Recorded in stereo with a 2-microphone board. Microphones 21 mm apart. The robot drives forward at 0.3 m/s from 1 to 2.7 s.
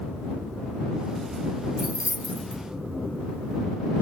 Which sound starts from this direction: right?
Keys jangling, at 1.8 s.